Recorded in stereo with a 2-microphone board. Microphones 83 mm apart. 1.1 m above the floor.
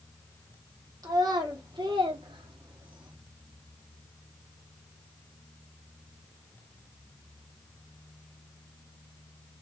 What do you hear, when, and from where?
1.0 s a child speaking: 50° right (ahead or behind), 1.4 m; by 3.1 s 65° right (ahead or behind), 1.1 m